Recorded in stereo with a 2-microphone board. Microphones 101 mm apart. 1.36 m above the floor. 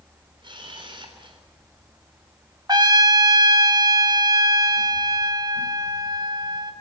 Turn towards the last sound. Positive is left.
turn(degrees=-40)  # may be behind; listen again after turning